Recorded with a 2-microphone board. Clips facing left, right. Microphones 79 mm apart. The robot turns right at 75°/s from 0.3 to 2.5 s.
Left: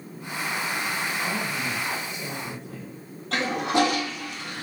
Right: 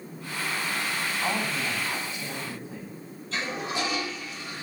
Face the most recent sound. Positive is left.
turn(degrees=70)  # may be behind; listen again after turning